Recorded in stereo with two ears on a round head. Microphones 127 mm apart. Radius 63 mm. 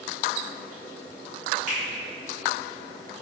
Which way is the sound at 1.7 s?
55° right (ahead or behind).